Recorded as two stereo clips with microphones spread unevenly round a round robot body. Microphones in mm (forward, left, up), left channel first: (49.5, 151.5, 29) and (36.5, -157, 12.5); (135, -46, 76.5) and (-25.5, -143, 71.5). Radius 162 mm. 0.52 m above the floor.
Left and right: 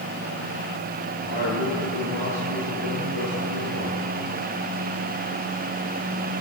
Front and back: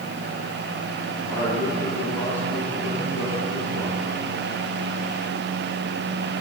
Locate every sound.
1.2 s a man speaking: 110° left, 9.5 m